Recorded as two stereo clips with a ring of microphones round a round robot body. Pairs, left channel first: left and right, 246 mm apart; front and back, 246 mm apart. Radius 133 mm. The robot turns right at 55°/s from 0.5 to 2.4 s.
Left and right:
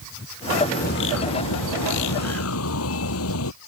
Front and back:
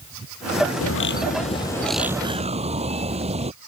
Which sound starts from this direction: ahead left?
A bird, at 0.8 s.